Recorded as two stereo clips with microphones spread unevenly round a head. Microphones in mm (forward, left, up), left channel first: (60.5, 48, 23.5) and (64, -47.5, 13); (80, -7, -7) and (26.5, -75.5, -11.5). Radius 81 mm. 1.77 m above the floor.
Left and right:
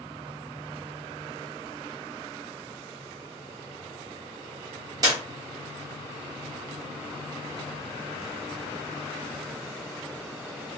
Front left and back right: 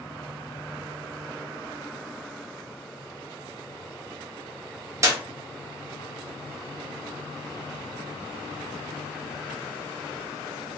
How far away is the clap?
About 0.9 m.